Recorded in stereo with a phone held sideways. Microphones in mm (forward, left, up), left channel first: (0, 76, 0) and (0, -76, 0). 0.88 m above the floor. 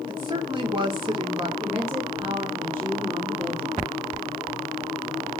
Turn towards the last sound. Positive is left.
turn(degrees=-15)  # may be behind; listen again after turning